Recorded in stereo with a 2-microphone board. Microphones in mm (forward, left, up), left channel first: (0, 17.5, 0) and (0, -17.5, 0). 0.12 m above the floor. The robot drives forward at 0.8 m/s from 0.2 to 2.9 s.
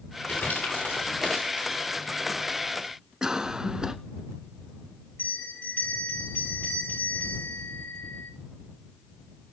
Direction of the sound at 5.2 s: 85° left.